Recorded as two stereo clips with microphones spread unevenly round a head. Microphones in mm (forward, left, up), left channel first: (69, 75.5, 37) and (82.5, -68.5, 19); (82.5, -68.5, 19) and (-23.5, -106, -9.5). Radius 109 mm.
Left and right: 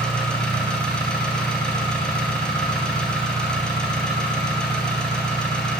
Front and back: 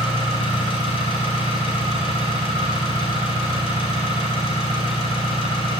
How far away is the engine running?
About 2.5 m.